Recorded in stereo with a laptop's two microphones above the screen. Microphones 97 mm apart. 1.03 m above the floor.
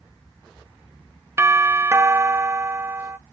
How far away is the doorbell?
About 0.6 m.